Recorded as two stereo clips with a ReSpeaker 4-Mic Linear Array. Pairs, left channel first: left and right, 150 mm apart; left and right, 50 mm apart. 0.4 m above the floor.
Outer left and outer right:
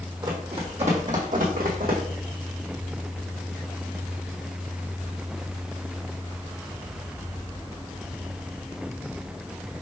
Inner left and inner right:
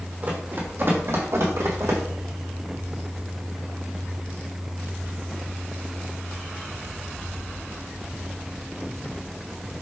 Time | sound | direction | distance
0.2 | running footsteps | 30° right (ahead or behind) | 1.3 m